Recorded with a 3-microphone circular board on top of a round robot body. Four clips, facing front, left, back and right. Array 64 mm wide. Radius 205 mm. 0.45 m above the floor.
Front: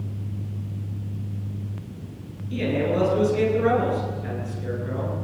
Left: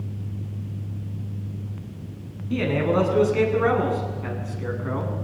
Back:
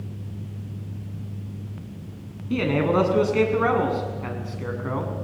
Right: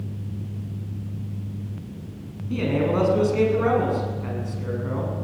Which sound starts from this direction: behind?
A man speaking, at 2.5 s.